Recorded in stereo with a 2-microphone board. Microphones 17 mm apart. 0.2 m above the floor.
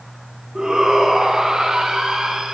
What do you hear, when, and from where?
0.6 s a shout: 45° right (ahead or behind), 2.5 m; by 2.5 s 50° right (ahead or behind), 2.5 m